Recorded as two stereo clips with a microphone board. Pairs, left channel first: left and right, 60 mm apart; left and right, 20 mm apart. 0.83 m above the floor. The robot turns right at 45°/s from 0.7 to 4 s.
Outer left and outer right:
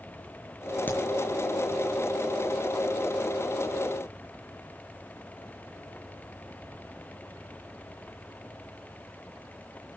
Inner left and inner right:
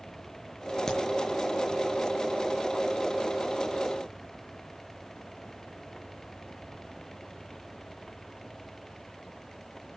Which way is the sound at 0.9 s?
30° left (ahead or behind).